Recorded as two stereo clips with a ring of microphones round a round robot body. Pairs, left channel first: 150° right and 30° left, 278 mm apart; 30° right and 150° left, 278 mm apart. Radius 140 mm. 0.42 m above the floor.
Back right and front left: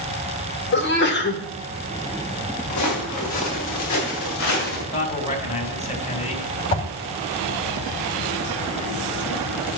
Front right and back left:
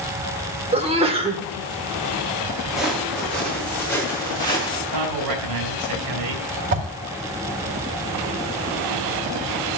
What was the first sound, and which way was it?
A sneeze, 155° right.